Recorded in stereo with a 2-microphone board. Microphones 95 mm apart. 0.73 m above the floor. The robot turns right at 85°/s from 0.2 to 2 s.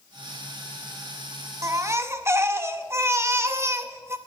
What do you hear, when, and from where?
1.6 s a baby crying: 95° right, 0.7 m; by 4.2 s 60° right, 0.7 m